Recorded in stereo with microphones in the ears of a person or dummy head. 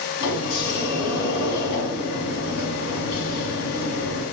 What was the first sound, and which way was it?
A sliding door, 70° left (ahead or behind).